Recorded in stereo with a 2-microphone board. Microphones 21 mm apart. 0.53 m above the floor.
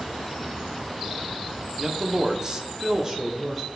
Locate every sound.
1.8 s a man speaking: 25° right (ahead or behind), 0.8 m; by 3.6 s 20° right (ahead or behind), 1.2 m